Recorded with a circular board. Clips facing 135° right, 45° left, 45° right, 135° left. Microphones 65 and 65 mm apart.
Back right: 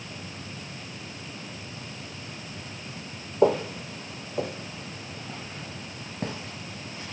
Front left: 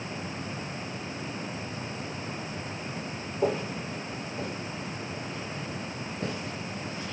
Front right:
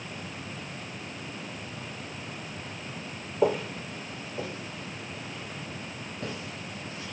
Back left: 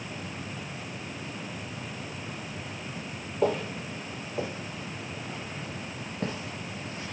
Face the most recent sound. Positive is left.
turn(degrees=170)